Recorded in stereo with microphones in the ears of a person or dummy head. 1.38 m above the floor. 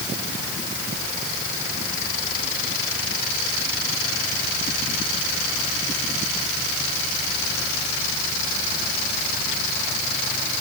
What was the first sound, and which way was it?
Only background noise.